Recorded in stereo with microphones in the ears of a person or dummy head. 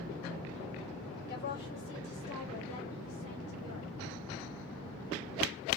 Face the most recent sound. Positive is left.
turn(degrees=75)  # may be behind; listen again after turning